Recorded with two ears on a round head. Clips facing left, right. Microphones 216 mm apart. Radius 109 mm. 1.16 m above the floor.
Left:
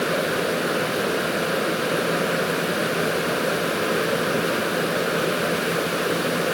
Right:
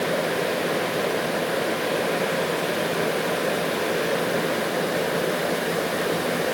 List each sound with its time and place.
Only background noise.